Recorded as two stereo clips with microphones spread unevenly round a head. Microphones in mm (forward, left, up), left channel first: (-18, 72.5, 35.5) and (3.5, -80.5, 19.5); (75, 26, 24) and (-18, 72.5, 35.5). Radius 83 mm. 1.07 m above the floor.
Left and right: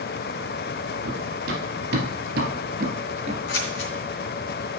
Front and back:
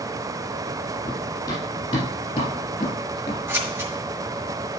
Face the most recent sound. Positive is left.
turn(degrees=90)